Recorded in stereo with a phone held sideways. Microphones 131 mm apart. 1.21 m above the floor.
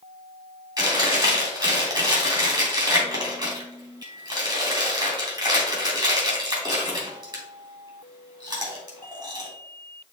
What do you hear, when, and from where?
0.8 s chewing: 30° right (ahead or behind), 3 m